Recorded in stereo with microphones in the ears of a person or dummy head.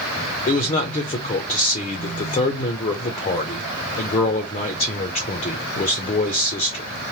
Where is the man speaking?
30° left (ahead or behind), 0.5 m.